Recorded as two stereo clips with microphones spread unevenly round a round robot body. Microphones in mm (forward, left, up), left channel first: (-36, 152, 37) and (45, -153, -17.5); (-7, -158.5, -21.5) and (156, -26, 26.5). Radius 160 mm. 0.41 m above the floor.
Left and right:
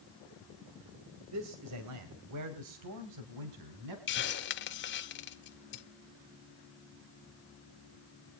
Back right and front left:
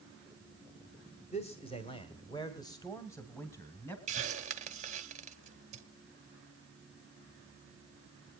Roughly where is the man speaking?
Right.